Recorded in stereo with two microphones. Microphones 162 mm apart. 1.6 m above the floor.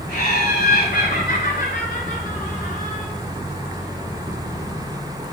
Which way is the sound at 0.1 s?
70° left (ahead or behind).